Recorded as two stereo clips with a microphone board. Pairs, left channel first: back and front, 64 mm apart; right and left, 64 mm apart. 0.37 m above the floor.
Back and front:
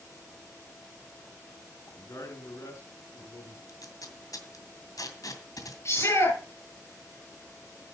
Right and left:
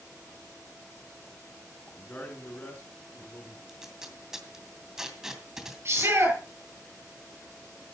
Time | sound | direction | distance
2.0 | a man speaking | 155° right | 5 m
3.7 | tape being pulled | 175° left | 2.5 m
5.8 | a shout | 135° left | 8.5 m